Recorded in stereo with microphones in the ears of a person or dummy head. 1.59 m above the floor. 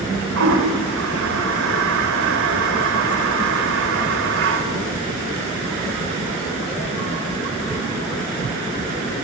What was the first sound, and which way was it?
A toilet flushing, 80° right.